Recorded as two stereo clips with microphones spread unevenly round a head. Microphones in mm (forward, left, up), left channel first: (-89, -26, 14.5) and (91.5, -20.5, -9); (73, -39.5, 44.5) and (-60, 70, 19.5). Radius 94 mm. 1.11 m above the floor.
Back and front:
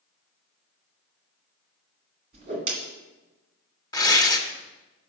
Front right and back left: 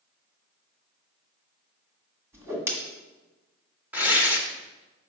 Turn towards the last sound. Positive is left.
turn(degrees=-130)